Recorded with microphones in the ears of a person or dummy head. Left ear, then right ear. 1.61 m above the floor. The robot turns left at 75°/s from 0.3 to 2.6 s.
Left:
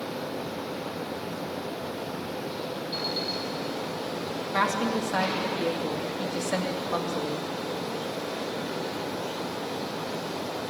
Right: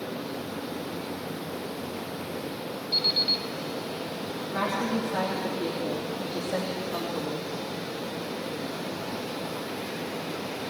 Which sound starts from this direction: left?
A woman speaking, at 4.5 s.